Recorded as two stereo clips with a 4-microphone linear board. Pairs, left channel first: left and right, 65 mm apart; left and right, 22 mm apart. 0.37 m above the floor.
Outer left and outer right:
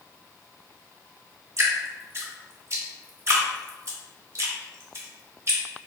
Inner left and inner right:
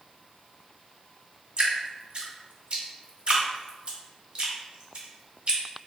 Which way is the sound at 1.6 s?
45° right (ahead or behind).